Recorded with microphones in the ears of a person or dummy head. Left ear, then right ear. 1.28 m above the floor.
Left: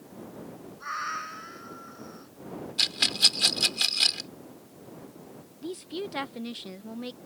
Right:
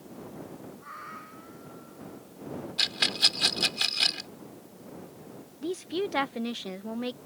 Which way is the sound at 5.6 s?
25° right (ahead or behind).